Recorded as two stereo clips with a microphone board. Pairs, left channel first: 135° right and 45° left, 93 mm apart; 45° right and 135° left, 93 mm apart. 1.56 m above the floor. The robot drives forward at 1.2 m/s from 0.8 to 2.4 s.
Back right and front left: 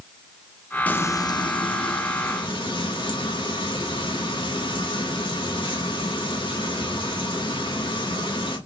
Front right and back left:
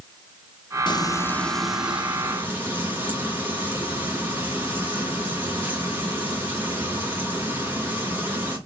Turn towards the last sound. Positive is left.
turn(degrees=-160)